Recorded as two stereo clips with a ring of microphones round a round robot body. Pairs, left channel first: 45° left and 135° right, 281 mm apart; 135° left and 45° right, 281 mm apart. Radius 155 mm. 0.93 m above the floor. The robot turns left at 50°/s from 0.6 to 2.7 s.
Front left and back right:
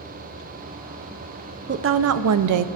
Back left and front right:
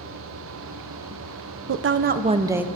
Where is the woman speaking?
80° right, 0.6 m; by 2.6 s 130° right, 0.6 m.